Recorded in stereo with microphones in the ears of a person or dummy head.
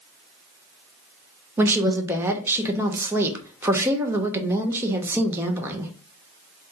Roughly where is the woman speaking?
Centre.